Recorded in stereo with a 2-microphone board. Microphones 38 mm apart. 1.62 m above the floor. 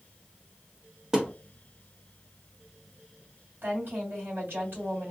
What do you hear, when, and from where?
1.1 s a thud: 20° right (ahead or behind), 0.9 m
3.6 s a woman speaking: 70° right (ahead or behind), 2.5 m